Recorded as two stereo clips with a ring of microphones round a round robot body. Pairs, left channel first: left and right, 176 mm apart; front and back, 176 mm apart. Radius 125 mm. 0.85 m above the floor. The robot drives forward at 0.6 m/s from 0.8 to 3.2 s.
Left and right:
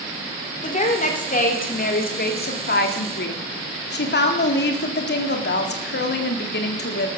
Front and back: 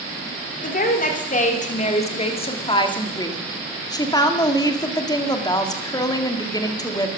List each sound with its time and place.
0.6 s a woman speaking: 40° left, 3 m; by 7.1 s 70° left, 2.5 m